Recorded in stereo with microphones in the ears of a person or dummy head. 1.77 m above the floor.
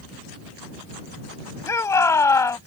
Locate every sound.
1.7 s a shout: 10° left (ahead or behind)